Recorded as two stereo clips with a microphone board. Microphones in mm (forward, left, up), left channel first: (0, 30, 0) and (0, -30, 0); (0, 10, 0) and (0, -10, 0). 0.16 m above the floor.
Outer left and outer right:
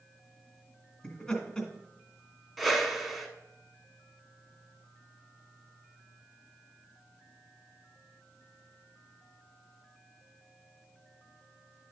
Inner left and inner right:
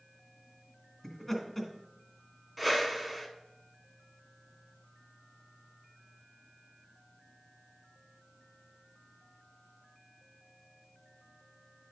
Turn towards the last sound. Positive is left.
turn(degrees=0)  # may be behind; listen again after turning